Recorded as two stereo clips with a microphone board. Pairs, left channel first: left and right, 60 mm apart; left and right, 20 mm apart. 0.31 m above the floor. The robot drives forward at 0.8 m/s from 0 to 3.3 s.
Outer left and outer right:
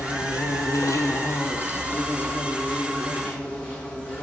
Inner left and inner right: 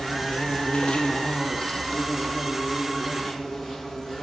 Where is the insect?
65° left (ahead or behind), 0.9 m; by 4.2 s 20° left (ahead or behind), 2.5 m.